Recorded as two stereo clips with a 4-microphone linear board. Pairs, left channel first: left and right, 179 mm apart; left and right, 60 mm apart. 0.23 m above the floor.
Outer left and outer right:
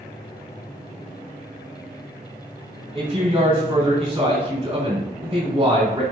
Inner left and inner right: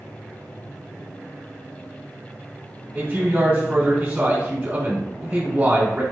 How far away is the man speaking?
About 1.7 m.